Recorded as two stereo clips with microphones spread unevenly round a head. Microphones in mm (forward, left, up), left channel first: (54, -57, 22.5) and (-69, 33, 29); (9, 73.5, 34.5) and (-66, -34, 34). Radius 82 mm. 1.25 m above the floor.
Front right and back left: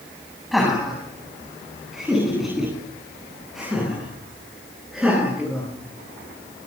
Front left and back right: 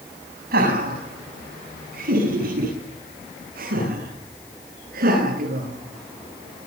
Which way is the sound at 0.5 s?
125° right.